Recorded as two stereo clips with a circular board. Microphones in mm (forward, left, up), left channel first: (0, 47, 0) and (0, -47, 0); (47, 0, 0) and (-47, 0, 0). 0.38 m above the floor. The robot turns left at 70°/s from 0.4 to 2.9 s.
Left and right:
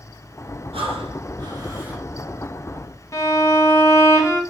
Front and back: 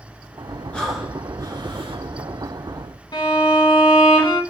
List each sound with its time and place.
0.7 s breathing: 80° right, 1.2 m; by 2.0 s 170° right, 1.2 m
3.1 s a violin: 40° left, 1.3 m